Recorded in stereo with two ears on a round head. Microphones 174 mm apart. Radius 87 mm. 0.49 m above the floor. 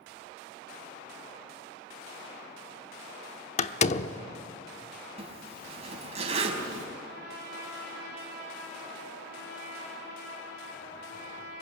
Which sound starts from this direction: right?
A zipper, at 5.2 s.